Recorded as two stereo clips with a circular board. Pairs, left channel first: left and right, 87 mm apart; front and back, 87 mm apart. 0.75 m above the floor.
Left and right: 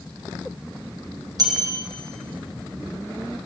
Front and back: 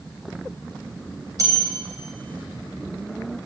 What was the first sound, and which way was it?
A bell, 135° right.